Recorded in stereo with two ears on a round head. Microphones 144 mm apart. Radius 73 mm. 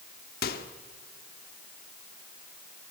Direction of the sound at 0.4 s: 60° left (ahead or behind).